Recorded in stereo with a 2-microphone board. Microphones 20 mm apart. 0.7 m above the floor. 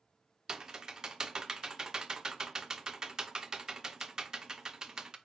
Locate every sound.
0.5 s typing on a keyboard: 35° right (ahead or behind), 0.6 m